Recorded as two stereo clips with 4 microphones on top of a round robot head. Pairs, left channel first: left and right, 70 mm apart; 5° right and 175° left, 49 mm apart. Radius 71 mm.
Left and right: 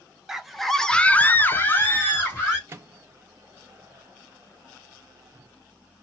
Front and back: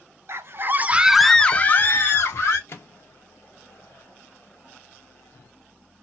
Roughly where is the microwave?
Ahead right.